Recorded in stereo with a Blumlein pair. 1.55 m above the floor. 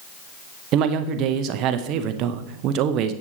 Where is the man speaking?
35° right, 0.6 m.